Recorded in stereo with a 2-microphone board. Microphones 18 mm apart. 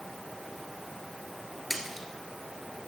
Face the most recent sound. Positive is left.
turn(degrees=-5)  # may be behind; listen again after turning